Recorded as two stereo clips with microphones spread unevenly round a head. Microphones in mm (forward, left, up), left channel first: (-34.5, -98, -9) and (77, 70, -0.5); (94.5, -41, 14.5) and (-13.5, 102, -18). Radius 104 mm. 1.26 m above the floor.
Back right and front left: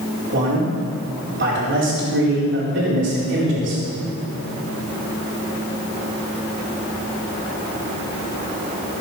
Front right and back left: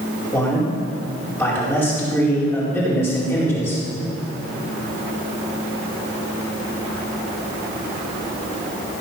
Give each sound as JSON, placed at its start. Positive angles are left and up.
{"t": 0.3, "sound": "a man speaking", "azimuth_deg": 25, "distance_m": 4.5}